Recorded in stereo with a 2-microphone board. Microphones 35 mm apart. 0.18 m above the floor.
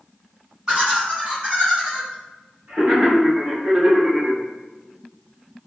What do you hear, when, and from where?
0.7 s laughter: 25° right (ahead or behind), 1.7 m; by 4.4 s 45° right (ahead or behind), 3.5 m